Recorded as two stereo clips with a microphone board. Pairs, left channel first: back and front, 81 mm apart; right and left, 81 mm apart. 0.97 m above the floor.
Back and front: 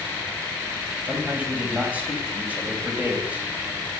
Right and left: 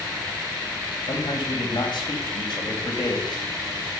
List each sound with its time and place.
1.1 s a man speaking: 70° right, 4.5 m